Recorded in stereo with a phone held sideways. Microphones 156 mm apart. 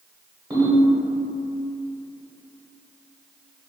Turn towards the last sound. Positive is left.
turn(degrees=-20)  # may be behind; listen again after turning